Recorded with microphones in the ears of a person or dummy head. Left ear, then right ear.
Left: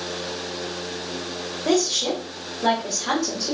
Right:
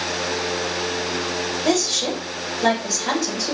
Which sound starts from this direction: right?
A woman speaking, at 1.6 s.